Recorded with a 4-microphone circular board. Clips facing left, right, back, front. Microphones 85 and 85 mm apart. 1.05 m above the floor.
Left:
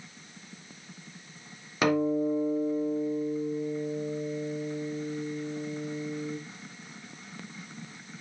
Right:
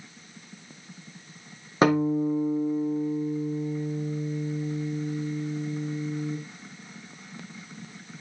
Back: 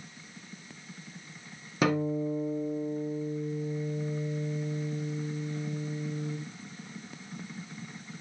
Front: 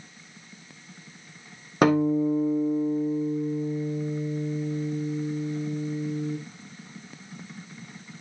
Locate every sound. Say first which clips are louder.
1.8 s a guitar: right 3 dB, front 7 dB; 35° right, 2.5 m